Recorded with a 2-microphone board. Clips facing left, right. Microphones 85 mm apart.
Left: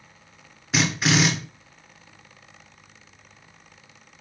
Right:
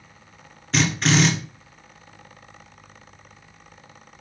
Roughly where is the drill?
Centre.